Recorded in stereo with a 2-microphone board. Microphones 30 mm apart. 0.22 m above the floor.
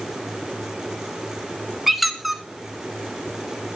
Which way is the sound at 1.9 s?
5° right (ahead or behind).